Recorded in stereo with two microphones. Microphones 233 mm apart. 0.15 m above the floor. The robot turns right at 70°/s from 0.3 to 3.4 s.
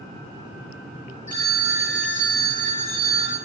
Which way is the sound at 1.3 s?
50° right.